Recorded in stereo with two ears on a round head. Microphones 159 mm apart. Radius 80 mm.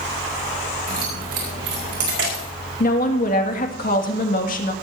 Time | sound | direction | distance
0.9 | keys jangling | 55° right (ahead or behind) | 6 m
2.8 | a woman speaking | 50° left (ahead or behind) | 2 m